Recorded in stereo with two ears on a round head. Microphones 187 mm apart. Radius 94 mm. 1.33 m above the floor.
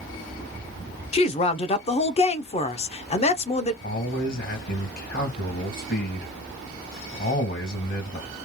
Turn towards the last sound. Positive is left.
turn(degrees=45)  # may be behind; listen again after turning